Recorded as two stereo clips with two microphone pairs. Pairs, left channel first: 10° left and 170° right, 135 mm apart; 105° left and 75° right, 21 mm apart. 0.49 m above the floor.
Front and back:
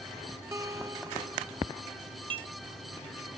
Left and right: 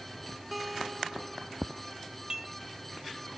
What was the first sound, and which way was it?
A guitar, 150° right.